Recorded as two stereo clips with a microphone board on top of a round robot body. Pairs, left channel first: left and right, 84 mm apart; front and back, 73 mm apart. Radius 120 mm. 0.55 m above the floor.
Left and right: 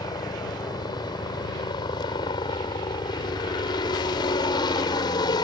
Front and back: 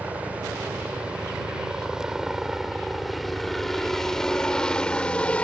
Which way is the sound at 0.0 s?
115° left.